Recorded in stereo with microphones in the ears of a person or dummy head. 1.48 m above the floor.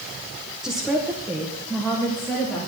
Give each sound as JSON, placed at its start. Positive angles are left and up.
{"t": 0.6, "sound": "a woman speaking", "side_deg": -5, "distance_m": 1.1}